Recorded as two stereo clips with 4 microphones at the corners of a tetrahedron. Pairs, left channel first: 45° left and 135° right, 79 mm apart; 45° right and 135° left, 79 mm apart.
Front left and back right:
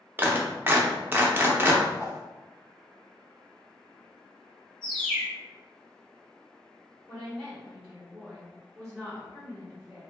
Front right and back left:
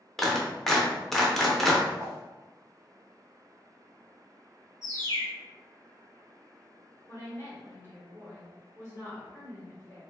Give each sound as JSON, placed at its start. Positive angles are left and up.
{"t": 0.2, "sound": "a clap", "azimuth_deg": -125, "distance_m": 0.5}
{"t": 2.0, "sound": "a whoosh", "azimuth_deg": 85, "distance_m": 0.6}
{"t": 4.8, "sound": "a bird", "azimuth_deg": 115, "distance_m": 1.8}
{"t": 7.1, "sound": "a woman speaking", "azimuth_deg": -25, "distance_m": 1.2}